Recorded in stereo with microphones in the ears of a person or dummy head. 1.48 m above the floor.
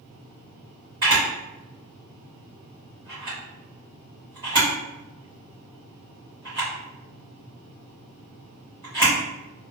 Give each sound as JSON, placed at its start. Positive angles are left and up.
{"t": 1.0, "sound": "a camera shutter", "side_deg": -20, "distance_m": 1.1}